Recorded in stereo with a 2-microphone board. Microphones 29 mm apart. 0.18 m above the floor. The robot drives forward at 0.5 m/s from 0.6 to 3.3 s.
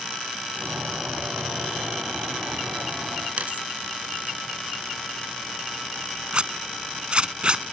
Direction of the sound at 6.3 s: 40° right (ahead or behind).